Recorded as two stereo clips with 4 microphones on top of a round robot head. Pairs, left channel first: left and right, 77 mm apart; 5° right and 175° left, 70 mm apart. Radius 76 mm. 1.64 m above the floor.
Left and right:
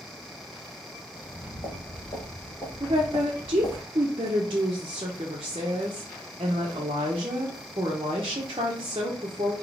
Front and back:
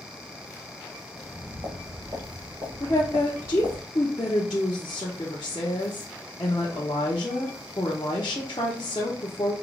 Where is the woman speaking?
50° right, 0.8 m.